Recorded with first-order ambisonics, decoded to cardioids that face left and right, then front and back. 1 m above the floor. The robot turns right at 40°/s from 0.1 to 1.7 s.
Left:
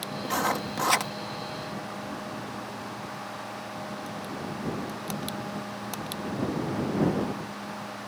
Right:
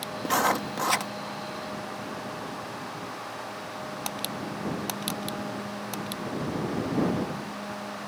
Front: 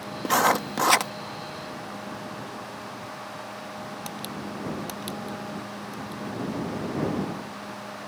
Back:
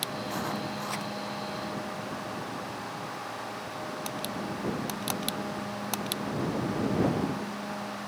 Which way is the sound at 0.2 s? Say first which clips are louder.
Right 3 dB, front 11 dB; 20° right.